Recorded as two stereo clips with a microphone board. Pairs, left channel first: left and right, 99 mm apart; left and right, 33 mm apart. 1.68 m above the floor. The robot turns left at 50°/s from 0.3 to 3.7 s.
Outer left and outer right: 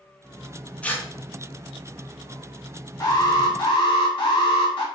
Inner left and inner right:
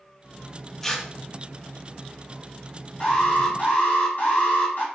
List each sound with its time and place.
0.8 s tearing paper: 10° left (ahead or behind), 0.5 m; by 1.1 s 25° left (ahead or behind), 0.5 m
3.0 s an alarm: 140° left, 1.3 m; by 4.8 s 105° left, 1.3 m